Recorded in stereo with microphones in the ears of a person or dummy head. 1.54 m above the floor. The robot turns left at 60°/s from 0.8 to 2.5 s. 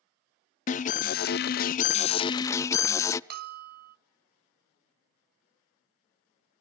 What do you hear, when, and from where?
0.7 s an alarm: 130° left, 0.5 m; by 3.2 s 30° left, 0.5 m
3.3 s a bell: 55° right (ahead or behind), 0.5 m